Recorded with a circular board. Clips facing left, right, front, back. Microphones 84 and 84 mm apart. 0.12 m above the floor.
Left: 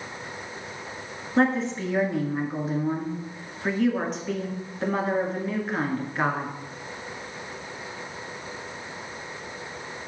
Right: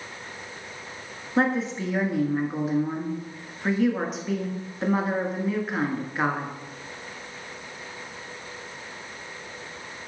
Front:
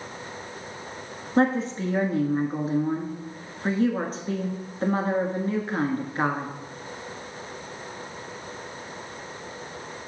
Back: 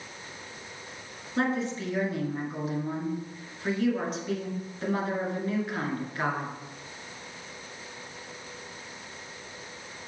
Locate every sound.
1.4 s a woman speaking: 5° right, 1.2 m